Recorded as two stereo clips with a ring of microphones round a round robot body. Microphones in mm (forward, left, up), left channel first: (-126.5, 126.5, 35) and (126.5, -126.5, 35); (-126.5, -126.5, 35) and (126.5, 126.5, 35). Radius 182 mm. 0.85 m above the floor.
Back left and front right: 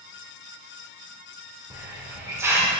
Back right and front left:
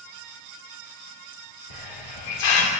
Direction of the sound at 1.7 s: 130° right.